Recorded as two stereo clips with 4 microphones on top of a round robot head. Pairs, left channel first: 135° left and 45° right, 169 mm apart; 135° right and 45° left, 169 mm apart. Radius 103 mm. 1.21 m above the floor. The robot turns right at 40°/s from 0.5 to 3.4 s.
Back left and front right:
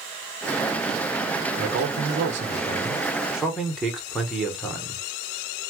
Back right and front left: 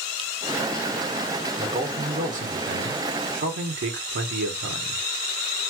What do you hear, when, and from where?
1.6 s a man speaking: 30° right, 1.1 m; by 5.1 s 45° left, 1.1 m